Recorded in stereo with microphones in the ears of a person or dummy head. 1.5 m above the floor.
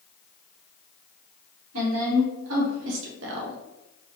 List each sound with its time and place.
1.7 s a woman speaking: 75° right (ahead or behind), 1.5 m; by 3.6 s 55° right (ahead or behind), 0.5 m